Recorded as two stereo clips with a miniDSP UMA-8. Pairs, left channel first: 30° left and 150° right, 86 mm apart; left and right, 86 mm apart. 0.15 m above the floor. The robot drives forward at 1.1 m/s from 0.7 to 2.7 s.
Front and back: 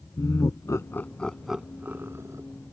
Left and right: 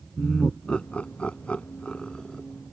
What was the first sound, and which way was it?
Laughter, 20° left.